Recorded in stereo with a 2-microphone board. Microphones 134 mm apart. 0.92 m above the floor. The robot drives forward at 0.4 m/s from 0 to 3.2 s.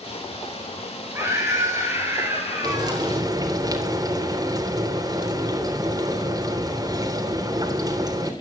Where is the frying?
30° right (ahead or behind), 3 m.